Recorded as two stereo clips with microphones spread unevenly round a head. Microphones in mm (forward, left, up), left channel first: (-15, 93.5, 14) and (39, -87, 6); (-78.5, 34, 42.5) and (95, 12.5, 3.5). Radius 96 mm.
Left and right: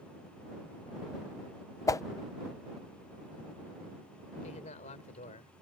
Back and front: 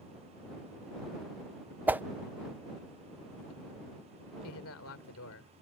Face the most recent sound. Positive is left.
turn(degrees=165)